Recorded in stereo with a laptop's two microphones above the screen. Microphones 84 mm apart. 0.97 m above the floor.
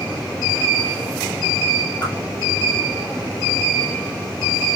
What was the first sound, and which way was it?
A whoosh, 60° left (ahead or behind).